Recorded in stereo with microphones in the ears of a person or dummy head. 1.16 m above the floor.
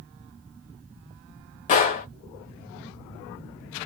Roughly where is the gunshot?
Left.